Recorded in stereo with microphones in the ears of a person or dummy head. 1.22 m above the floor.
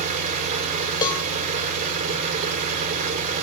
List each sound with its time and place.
0.0 s an engine running: 50° right (ahead or behind), 4 m
1.0 s a cowbell: 25° left (ahead or behind), 1.6 m